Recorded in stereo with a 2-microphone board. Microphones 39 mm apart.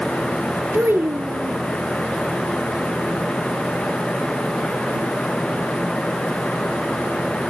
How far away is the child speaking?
About 2.5 m.